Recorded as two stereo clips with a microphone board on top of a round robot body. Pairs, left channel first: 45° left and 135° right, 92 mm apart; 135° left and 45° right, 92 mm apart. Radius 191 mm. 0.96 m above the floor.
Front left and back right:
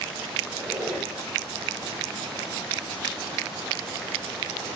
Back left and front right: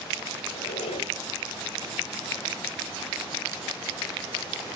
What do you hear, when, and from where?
0.5 s a squeak: 135° left, 2.0 m